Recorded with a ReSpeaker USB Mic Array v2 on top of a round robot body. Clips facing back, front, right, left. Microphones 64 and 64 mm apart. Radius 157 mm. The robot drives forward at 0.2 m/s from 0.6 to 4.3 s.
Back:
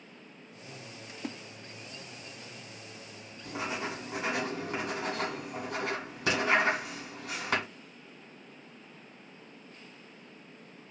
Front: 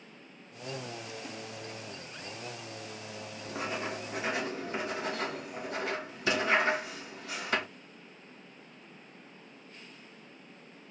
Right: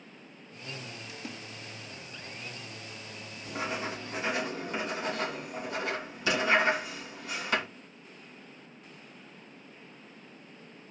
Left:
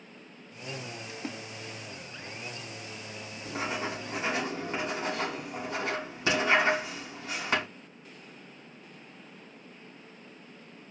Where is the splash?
140° left, 0.7 m; by 1.4 s 145° left, 0.8 m.